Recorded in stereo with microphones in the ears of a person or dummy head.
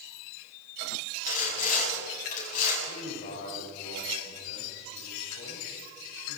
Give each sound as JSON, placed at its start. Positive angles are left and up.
{"t": 1.3, "sound": "sawing", "side_deg": 50, "distance_m": 8.0}
{"t": 2.9, "sound": "a man speaking", "side_deg": 40, "distance_m": 7.5}